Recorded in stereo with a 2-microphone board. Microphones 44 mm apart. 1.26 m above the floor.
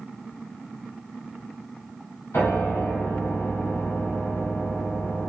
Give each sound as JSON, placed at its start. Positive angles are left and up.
{"t": 2.3, "sound": "a piano", "side_deg": 90, "distance_m": 3.5}